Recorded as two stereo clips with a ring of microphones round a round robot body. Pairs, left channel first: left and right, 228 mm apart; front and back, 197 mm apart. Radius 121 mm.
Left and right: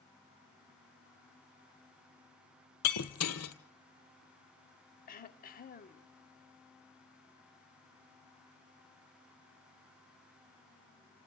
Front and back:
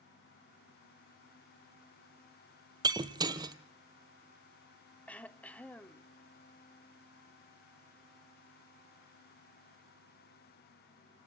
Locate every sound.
2.8 s breaking glass: 110° left, 1.4 m
5.1 s throat clearing: 80° left, 1.1 m